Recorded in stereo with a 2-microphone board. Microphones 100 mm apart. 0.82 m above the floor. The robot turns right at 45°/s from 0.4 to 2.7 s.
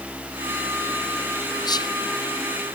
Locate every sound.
1.6 s whispering: 45° left (ahead or behind), 0.6 m